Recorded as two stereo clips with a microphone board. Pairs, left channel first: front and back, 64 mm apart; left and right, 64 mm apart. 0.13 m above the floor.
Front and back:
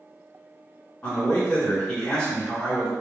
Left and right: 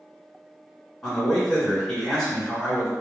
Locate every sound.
1.0 s a man speaking: 25° left, 1.5 m